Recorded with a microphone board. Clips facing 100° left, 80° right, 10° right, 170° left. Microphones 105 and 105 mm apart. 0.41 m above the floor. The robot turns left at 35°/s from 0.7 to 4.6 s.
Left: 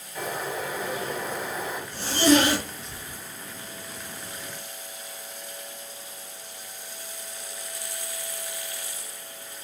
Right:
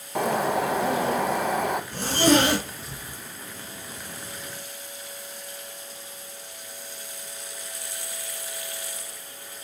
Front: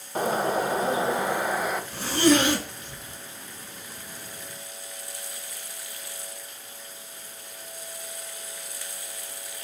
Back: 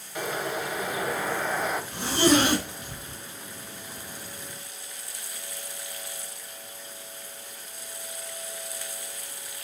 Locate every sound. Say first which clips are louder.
0.1 s a bird: right 8 dB, front 6 dB; 65° right, 0.8 m; by 1.8 s 100° right, 0.8 m
1.9 s a zipper: left 1 dB, front 1 dB; 115° right, 2.5 m; by 3.2 s 160° right, 2.5 m